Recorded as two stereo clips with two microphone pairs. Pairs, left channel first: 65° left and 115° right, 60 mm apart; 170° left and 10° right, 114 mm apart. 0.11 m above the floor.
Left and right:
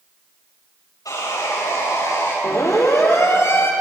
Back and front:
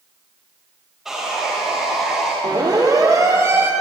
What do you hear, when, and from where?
1.1 s sawing: 80° left, 9 m
2.4 s a siren: 40° left, 4.5 m; by 3.7 s 55° left, 3 m